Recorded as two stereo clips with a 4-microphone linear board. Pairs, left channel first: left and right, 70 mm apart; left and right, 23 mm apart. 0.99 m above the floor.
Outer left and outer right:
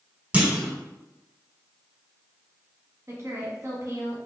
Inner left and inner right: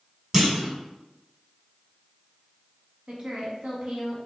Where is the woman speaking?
40° right (ahead or behind), 1.5 m.